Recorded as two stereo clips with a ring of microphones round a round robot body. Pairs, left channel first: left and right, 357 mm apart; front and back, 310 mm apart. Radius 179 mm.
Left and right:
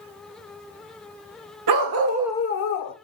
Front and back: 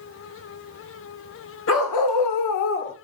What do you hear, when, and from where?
1.7 s a dog barking: 55° right, 1.0 m; by 3.0 s 60° left, 1.0 m